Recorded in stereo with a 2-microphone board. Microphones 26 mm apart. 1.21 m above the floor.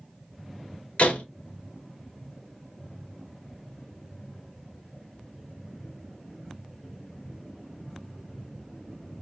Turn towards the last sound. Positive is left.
turn(degrees=65)  # may be behind; listen again after turning